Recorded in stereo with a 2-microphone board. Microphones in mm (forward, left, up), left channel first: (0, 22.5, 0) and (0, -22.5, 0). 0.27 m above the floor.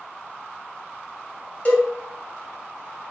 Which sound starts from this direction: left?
A cowbell, at 1.6 s.